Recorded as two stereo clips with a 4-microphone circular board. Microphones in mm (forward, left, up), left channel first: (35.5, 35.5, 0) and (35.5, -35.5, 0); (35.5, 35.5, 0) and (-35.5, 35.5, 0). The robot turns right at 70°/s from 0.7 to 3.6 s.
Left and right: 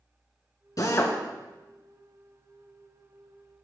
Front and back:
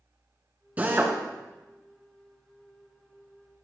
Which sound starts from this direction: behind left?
A drill, at 0.8 s.